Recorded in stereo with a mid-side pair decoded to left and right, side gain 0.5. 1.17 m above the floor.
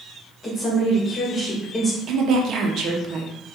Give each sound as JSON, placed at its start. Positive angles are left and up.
{"t": 0.4, "sound": "a woman speaking", "azimuth_deg": 30, "distance_m": 1.7}
{"t": 2.1, "sound": "a woman speaking", "azimuth_deg": -60, "distance_m": 1.0}